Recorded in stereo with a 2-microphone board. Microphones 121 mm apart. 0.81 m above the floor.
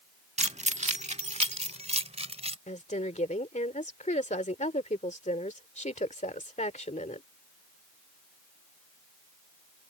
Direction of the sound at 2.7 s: 80° left.